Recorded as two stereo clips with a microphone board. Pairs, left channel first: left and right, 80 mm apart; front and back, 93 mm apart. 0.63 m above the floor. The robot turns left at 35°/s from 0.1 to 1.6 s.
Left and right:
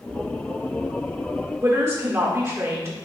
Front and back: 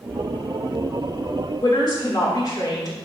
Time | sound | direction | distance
1.6 | a woman speaking | 35° right | 2 m